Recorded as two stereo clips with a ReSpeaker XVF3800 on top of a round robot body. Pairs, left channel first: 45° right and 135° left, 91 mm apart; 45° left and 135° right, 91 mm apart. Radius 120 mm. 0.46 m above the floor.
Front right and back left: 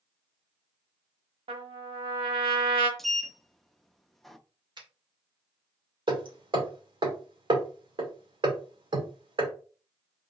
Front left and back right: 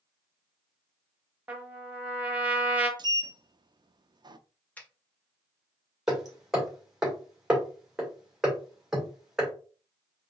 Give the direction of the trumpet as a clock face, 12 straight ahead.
7 o'clock.